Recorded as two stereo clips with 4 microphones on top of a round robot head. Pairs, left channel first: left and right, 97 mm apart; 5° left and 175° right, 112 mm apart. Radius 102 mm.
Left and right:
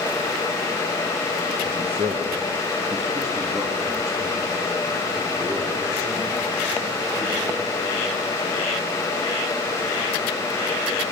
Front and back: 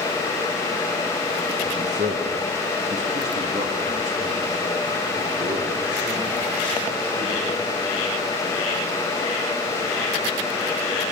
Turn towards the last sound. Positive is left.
turn(degrees=-165)